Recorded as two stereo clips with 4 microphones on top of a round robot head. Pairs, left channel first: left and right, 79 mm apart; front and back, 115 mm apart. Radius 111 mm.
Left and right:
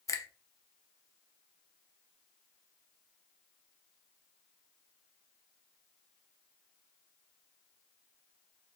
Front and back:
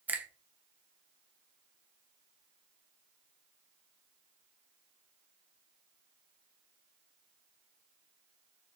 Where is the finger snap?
110° left, 0.8 m.